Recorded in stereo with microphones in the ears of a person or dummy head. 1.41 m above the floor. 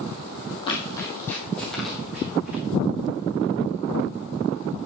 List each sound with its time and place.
0.7 s running footsteps: 30° left (ahead or behind), 2 m; by 2.6 s 10° right (ahead or behind), 3 m